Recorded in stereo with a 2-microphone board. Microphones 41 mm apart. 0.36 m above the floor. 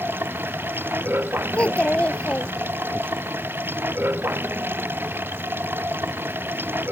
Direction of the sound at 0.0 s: 55° right (ahead or behind).